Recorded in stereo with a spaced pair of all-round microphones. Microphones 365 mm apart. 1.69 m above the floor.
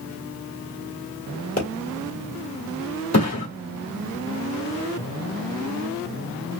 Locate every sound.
1.6 s a pop: 40° left (ahead or behind), 1.8 m
3.1 s a thud: 45° left (ahead or behind), 1.9 m